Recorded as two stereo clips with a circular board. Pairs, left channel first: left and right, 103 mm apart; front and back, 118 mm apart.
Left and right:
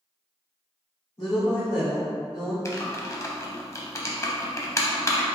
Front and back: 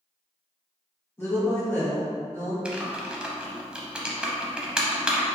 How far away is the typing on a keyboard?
About 0.6 m.